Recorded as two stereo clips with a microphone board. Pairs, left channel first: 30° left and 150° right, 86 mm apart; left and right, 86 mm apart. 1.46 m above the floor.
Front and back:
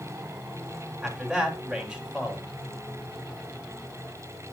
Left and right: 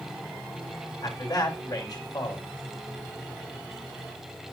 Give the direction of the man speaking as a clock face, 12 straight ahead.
8 o'clock.